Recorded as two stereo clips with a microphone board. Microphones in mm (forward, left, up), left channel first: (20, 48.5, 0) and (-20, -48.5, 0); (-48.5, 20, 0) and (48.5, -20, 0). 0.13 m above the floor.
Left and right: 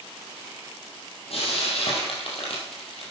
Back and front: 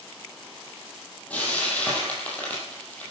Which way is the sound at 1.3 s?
85° left.